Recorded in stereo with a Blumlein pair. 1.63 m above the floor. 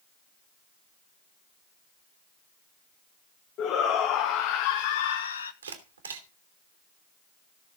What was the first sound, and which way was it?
A shout, 30° left.